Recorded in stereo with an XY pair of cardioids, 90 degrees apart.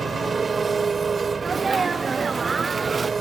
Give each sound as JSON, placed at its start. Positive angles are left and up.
{"t": 0.0, "sound": "an engine running", "azimuth_deg": -40}
{"t": 1.4, "sound": "a sneeze", "azimuth_deg": -35}